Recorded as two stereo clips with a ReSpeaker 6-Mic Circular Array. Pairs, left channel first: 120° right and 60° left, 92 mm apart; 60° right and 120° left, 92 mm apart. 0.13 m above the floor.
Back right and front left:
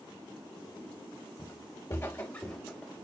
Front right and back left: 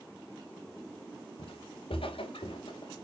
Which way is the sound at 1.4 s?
75° right.